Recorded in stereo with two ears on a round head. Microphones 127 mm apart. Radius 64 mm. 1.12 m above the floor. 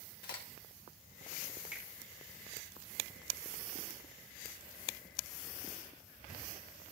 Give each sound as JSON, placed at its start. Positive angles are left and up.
{"t": 0.2, "sound": "a crack", "side_deg": 70, "distance_m": 2.0}
{"t": 1.7, "sound": "a finger snap", "side_deg": -10, "distance_m": 2.5}